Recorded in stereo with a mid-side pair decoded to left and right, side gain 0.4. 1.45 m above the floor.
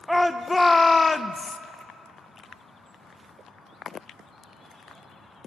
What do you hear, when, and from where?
0.1 s a shout: straight ahead, 1.0 m; by 1.6 s 45° left, 1.1 m